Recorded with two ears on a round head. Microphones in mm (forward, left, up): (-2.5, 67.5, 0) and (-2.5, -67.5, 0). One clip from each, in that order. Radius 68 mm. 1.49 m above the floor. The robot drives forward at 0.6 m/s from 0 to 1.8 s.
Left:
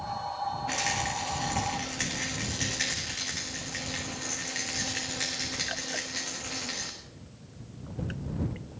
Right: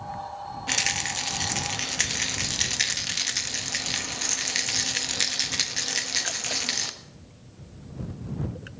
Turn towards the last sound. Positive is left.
turn(degrees=-65)  # may be behind; listen again after turning